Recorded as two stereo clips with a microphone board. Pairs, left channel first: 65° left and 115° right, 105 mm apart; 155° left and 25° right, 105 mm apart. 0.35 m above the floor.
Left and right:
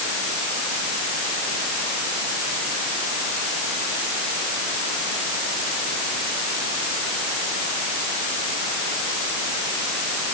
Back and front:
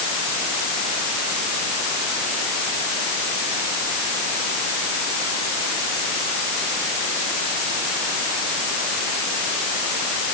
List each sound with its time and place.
Only background noise.